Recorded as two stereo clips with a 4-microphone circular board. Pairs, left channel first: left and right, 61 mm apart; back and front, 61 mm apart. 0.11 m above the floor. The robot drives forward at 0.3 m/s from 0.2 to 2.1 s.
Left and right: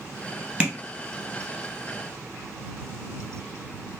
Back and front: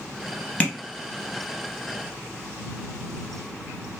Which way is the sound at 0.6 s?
145° right.